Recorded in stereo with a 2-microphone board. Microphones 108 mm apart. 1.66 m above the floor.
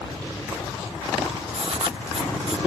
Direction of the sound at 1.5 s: 85° right.